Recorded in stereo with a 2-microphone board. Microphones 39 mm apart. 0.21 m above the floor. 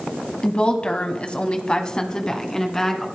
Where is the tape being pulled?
No tape being pulled in this recording.